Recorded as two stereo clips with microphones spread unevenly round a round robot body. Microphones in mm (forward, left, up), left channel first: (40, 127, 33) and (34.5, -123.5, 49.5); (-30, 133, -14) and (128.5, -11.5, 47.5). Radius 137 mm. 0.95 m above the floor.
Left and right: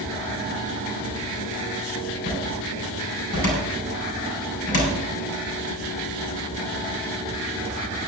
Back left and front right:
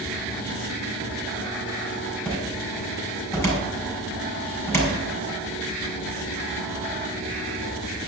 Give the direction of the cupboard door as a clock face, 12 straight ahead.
10 o'clock.